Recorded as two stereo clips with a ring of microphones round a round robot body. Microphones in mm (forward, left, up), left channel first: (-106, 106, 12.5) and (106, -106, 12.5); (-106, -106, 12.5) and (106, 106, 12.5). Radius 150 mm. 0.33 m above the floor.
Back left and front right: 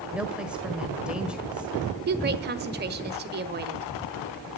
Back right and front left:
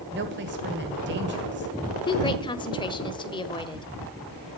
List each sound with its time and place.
0.1 s a woman speaking: 40° left, 1.6 m
2.1 s a woman speaking: 70° right, 1.4 m